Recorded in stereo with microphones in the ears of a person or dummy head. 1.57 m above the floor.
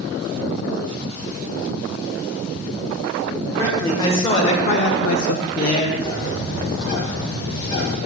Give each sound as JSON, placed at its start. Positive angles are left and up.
{"t": 3.6, "sound": "a man speaking", "side_deg": 20, "distance_m": 1.6}
{"t": 6.0, "sound": "a bird", "side_deg": 70, "distance_m": 1.8}